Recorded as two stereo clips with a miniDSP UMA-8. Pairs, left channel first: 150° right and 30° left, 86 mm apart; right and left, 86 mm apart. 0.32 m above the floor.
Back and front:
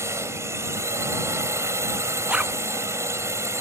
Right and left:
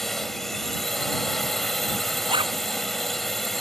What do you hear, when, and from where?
0.0 s a drone: 5° right
2.3 s a zipper: 105° left